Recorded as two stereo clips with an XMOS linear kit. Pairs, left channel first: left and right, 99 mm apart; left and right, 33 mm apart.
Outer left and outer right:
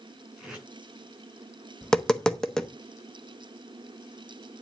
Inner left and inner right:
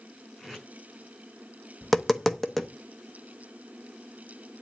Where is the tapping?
5° left (ahead or behind), 0.7 m.